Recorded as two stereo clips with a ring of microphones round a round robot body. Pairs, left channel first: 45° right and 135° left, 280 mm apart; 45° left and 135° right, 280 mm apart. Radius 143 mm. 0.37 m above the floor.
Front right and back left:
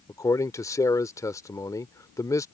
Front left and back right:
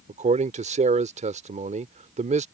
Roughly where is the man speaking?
Right.